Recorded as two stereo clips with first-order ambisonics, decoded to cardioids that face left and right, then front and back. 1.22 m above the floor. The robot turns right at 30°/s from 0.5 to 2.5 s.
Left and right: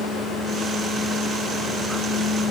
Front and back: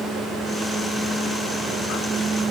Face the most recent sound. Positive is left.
No sound to turn to.